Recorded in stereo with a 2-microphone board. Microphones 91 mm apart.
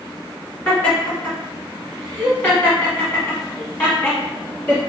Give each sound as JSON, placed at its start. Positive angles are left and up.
{"t": 0.7, "sound": "laughter", "side_deg": 15, "distance_m": 1.9}